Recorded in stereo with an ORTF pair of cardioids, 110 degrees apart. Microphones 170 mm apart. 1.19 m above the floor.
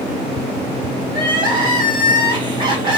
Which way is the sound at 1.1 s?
30° right.